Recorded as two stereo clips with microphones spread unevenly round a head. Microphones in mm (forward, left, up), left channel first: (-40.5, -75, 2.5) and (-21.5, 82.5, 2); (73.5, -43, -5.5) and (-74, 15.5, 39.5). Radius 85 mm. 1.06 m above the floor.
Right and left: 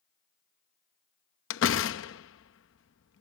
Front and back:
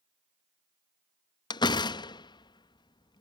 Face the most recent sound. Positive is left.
turn(degrees=-90)